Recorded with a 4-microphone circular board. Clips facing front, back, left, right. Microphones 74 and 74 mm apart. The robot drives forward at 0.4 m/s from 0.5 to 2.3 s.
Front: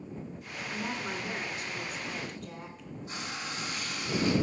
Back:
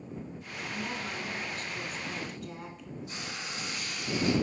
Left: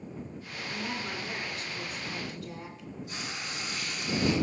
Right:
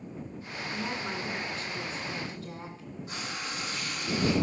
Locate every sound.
0.7 s a woman speaking: 45° right, 1.4 m; by 2.9 s 90° right, 1.3 m
3.1 s frying: 55° right, 4 m